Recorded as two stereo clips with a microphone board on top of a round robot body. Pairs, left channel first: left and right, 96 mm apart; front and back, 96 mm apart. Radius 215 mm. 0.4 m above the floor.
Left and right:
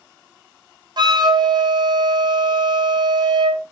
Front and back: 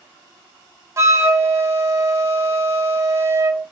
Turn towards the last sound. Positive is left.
turn(degrees=-120)